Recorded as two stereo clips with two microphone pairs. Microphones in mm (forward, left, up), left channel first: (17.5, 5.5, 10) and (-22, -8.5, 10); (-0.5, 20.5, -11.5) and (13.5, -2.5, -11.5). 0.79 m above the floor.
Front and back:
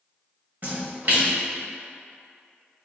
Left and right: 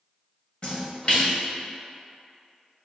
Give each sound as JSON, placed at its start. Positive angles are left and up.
{"t": 0.6, "sound": "a splash", "azimuth_deg": 165, "distance_m": 0.9}